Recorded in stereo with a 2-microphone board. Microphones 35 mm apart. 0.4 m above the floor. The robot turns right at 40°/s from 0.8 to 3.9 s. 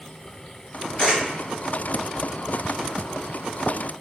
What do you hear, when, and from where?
1.0 s a camera shutter: 40° left (ahead or behind), 1.3 m; by 1.2 s 30° left (ahead or behind), 1.3 m